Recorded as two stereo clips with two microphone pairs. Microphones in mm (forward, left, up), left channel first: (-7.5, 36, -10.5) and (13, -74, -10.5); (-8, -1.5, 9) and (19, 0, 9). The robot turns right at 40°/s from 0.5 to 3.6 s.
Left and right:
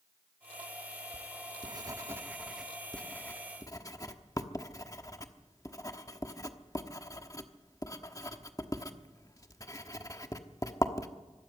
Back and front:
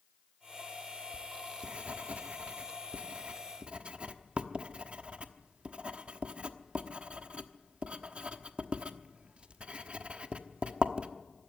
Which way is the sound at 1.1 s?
55° right.